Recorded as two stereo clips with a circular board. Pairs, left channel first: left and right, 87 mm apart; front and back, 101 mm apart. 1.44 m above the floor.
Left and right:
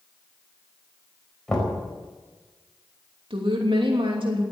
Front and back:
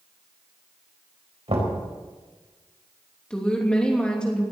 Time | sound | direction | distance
1.5 | knocking | 175° left | 4.5 m
3.3 | a woman speaking | 80° right | 3 m